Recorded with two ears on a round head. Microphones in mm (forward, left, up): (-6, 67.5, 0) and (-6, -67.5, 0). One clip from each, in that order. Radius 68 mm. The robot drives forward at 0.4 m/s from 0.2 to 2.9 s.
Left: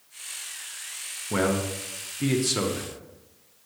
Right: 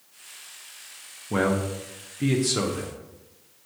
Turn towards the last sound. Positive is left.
turn(degrees=10)  # may be behind; listen again after turning